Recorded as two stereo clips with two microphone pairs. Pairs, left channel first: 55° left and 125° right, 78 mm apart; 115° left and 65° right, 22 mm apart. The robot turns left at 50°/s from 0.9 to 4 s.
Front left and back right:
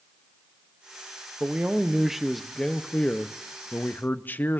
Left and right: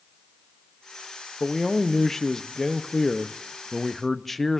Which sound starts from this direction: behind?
A man speaking, at 1.4 s.